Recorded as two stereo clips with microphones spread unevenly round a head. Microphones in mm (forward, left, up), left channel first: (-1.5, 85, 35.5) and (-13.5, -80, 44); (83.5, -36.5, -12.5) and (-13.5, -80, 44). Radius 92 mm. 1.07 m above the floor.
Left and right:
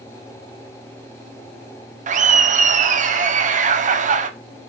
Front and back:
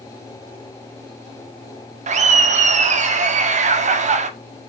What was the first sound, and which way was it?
Laughter, 125° right.